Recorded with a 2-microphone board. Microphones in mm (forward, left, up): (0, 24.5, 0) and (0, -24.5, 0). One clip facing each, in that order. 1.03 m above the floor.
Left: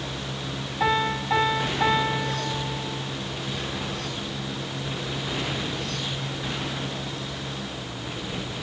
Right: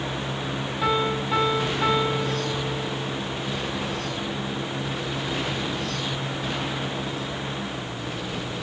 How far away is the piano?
About 8 m.